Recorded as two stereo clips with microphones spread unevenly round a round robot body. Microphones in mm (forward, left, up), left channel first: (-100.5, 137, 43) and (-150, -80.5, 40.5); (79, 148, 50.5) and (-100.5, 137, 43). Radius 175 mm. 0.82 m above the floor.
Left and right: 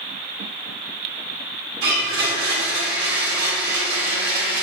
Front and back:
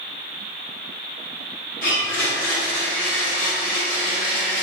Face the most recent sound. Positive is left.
turn(degrees=-50)